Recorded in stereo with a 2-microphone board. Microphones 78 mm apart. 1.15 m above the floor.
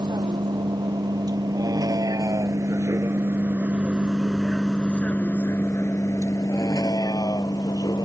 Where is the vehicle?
65° right (ahead or behind); by 8.1 s 65° left (ahead or behind).